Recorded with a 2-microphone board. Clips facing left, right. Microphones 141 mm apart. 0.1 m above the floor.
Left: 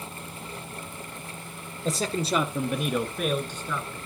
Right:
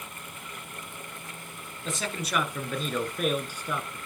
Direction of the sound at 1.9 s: 40° left (ahead or behind).